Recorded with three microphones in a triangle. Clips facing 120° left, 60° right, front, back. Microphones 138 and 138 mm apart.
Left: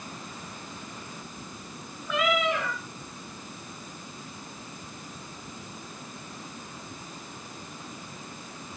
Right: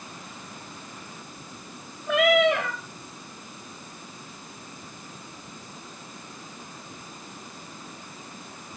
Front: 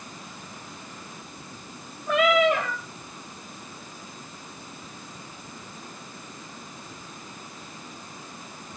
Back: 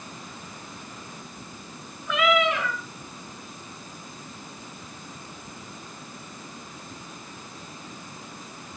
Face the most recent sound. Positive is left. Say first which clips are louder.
# right 7 dB, front 3 dB
turn(degrees=-45)